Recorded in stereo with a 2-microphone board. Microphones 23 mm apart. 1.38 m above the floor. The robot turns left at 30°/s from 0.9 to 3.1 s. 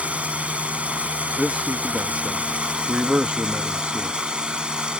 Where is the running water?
70° right; by 5.0 s 135° right.